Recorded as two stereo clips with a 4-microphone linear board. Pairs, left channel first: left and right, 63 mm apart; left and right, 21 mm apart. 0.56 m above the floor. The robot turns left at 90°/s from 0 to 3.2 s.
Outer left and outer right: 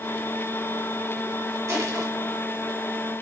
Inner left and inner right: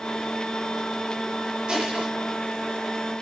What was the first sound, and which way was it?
Crushing, 60° right.